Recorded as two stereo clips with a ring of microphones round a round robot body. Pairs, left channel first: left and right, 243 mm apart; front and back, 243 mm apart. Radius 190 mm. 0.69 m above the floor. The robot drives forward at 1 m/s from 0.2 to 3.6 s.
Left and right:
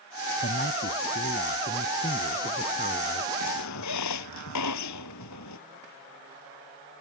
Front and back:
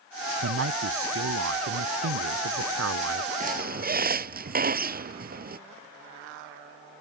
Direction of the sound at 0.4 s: 150° left.